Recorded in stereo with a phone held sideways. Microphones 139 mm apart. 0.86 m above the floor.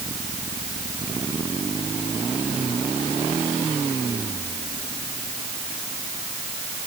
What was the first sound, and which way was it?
Only background noise.